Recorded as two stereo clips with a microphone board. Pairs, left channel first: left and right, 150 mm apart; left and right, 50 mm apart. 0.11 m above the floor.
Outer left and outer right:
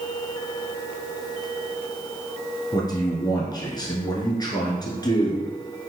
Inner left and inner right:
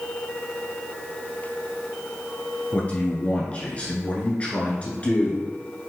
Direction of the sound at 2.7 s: 30° left (ahead or behind).